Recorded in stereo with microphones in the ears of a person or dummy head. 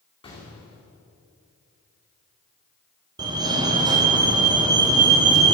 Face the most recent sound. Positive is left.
turn(degrees=-20)  # may be behind; listen again after turning